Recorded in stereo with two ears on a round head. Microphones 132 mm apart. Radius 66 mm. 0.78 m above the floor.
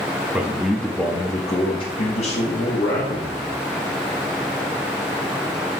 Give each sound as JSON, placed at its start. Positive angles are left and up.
{"t": 0.3, "sound": "a man speaking", "side_deg": -10, "distance_m": 1.0}